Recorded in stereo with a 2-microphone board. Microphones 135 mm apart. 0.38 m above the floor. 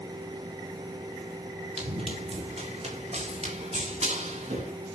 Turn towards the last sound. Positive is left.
turn(degrees=-55)  # may be behind; listen again after turning